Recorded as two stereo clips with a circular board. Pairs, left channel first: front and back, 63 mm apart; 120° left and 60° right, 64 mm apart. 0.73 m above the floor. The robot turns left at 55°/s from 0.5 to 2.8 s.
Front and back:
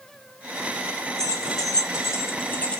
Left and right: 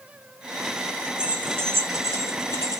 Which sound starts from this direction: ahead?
Keys jangling, at 1.2 s.